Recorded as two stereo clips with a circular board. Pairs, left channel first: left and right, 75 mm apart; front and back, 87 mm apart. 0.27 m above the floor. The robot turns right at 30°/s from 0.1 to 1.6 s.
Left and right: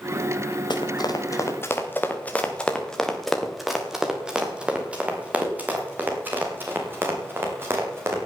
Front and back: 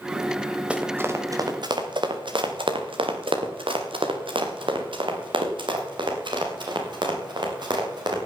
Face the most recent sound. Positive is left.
turn(degrees=-145)